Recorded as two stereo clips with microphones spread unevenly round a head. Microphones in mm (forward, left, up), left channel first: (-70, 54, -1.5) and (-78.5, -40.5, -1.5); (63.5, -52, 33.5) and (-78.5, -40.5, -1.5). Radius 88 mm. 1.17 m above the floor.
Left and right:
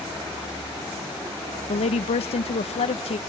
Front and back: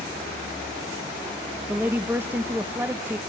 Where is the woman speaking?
95° left, 0.7 m.